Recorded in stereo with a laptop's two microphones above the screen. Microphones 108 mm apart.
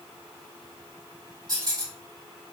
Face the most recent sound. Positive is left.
turn(degrees=-40)  # may be behind; listen again after turning